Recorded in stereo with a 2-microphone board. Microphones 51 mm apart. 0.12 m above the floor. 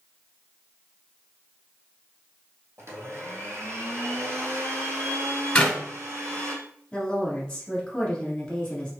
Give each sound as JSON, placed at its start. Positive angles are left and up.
{"t": 2.8, "sound": "a blender", "side_deg": -60, "distance_m": 0.9}
{"t": 5.5, "sound": "a clap", "side_deg": 20, "distance_m": 1.3}
{"t": 6.9, "sound": "a woman speaking", "side_deg": 15, "distance_m": 1.5}